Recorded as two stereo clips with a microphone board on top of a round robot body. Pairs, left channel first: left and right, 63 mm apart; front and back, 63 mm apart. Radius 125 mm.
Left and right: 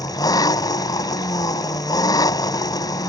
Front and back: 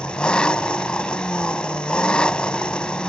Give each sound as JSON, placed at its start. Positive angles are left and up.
{"t": 0.0, "sound": "an engine running", "azimuth_deg": 75}